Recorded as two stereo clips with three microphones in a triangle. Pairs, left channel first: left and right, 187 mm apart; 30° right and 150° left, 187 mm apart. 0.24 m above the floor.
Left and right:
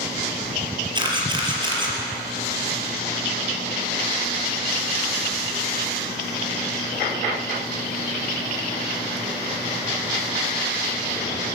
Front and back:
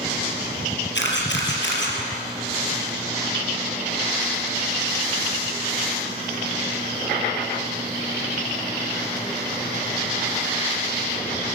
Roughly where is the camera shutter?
Ahead right.